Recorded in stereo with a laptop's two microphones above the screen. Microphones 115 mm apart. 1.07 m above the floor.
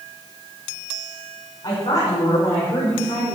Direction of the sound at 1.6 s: 35° left (ahead or behind).